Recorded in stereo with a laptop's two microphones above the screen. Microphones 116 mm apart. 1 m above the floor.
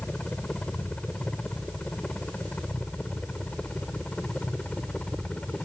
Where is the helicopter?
10° left (ahead or behind).